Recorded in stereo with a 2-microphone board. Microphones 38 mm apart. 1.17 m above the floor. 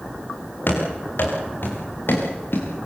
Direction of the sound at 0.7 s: 60° left (ahead or behind).